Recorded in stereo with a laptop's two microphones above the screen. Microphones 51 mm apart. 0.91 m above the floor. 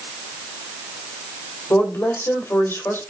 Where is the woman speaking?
50° left (ahead or behind), 3 m.